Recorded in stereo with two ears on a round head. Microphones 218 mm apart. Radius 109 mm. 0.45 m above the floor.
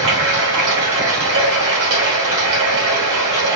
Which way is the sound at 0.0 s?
55° right (ahead or behind).